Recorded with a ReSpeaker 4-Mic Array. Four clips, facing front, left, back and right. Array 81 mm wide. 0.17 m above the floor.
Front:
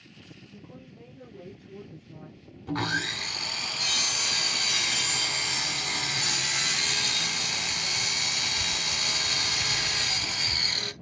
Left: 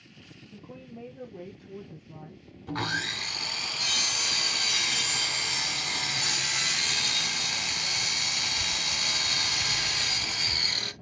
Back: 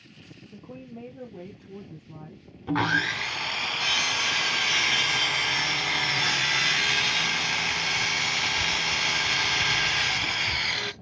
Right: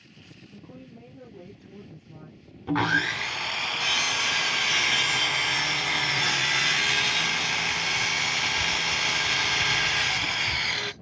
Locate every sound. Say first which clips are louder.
0.5 s a woman speaking: left 2 dB, back 8 dB; 165° left, 3.5 m
2.7 s sawing: right 7 dB, back 5 dB; 130° right, 0.6 m